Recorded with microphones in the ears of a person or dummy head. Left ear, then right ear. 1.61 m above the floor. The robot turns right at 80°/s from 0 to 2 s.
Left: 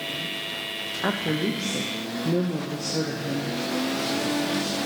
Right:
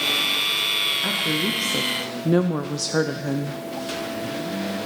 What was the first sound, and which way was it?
A woman speaking, 150° left.